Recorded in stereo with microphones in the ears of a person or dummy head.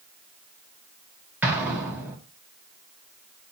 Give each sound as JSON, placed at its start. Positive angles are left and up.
{"t": 1.4, "sound": "an explosion", "side_deg": -10, "distance_m": 1.5}